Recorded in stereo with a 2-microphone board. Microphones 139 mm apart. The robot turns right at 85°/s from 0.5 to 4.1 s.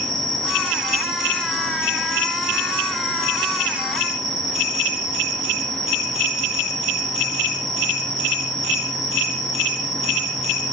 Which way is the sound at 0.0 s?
60° right.